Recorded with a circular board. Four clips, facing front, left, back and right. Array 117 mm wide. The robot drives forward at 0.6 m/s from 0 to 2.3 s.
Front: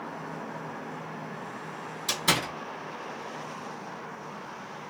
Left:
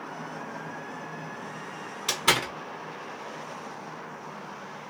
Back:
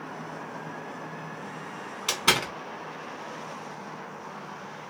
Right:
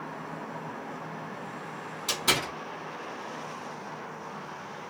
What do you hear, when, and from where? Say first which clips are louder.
2.1 s a door slam: left 3 dB, back 2 dB; 160° left, 1.6 m